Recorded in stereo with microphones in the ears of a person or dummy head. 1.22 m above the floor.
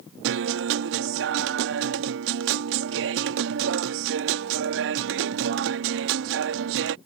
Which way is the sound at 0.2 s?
60° right (ahead or behind).